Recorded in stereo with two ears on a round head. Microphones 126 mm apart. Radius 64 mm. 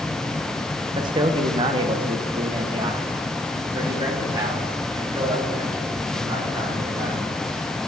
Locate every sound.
0.9 s a man speaking: 30° right (ahead or behind), 0.7 m